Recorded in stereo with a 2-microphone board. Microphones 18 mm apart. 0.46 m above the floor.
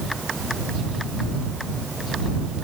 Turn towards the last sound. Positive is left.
No sound to turn to.